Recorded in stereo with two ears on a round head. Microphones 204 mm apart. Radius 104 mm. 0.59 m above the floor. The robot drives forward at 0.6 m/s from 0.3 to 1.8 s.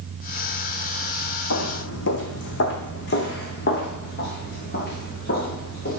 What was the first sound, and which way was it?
Footsteps, 65° left (ahead or behind).